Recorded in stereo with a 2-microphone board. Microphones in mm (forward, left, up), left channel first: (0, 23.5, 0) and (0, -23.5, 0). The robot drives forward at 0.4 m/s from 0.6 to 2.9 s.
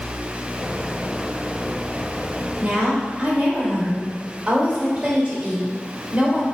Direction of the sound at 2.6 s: 25° right (ahead or behind).